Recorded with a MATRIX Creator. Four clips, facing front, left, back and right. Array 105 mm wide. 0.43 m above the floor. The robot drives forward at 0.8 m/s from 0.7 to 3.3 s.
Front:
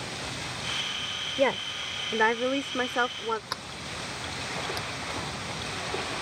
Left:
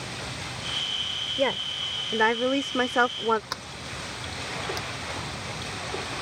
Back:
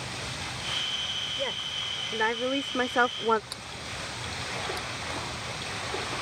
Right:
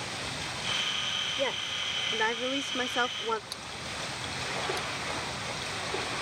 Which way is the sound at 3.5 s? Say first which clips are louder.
Left 3 dB, front 3 dB; 50° left.